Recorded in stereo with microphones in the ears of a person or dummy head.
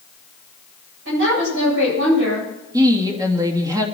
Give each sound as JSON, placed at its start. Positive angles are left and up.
{"t": 1.1, "sound": "a woman speaking", "side_deg": -70, "distance_m": 9.0}
{"t": 2.7, "sound": "a woman speaking", "side_deg": -20, "distance_m": 2.5}